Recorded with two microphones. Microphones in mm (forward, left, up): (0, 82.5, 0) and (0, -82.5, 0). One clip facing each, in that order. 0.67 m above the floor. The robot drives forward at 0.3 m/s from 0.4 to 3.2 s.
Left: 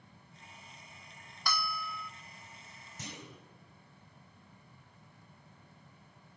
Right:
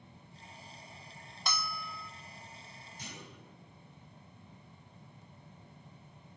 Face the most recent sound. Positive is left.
turn(degrees=80)